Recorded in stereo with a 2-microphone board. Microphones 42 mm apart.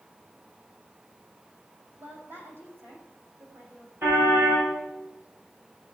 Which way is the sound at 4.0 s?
65° right (ahead or behind).